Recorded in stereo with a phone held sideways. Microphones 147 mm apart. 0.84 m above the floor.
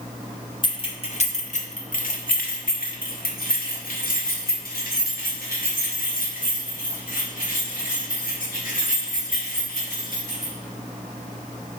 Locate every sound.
0.6 s keys jangling: 30° left (ahead or behind), 1.1 m; by 10.5 s 65° left (ahead or behind), 5.5 m